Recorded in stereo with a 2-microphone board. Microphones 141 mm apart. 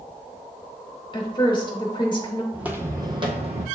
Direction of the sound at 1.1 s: 35° left (ahead or behind).